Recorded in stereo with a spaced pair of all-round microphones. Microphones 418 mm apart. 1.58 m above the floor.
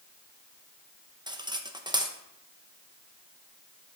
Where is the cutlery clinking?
10° right (ahead or behind), 0.7 m.